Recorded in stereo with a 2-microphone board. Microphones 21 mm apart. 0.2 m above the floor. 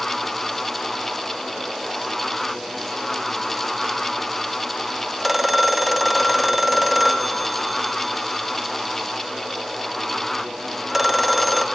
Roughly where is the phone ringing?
Centre.